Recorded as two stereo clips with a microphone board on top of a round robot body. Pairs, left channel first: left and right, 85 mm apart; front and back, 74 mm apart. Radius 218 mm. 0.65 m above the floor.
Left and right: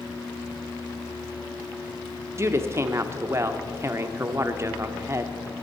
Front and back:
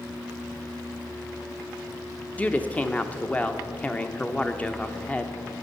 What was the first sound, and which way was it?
A woman speaking, 60° right.